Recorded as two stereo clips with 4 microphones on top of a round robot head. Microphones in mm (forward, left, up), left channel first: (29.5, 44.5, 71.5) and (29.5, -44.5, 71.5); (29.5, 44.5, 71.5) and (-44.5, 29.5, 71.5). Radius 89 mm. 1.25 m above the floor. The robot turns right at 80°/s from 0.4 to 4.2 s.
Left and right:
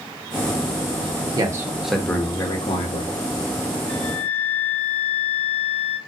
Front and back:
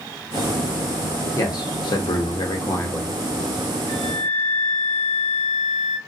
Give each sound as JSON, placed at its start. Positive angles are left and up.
{"t": 1.4, "sound": "a man speaking", "azimuth_deg": -45, "distance_m": 0.8}
{"t": 3.9, "sound": "a flute", "azimuth_deg": 135, "distance_m": 1.7}